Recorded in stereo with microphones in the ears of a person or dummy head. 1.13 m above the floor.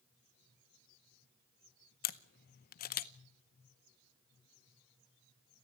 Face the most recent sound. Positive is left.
turn(degrees=50)  # may be behind; listen again after turning